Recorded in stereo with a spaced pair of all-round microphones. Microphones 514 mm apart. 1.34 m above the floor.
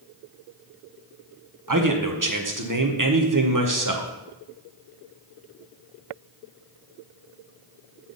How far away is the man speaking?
About 1.0 m.